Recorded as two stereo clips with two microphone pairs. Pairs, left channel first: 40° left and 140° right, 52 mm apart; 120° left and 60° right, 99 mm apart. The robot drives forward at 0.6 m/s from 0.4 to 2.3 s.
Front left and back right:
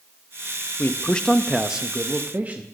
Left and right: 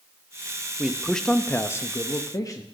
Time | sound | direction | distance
0.8 | a man speaking | 20° left | 0.6 m